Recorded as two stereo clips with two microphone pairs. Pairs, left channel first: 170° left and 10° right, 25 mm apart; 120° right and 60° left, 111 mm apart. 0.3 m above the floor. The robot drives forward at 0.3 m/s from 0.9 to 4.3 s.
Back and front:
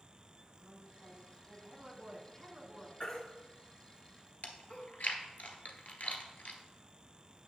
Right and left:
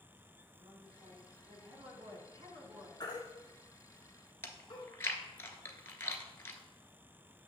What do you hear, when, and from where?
0.6 s a woman speaking: 40° left, 2.5 m; by 2.9 s 50° left, 2 m
3.0 s a baby crying: 170° right, 1.6 m
4.4 s chewing: 175° left, 1.0 m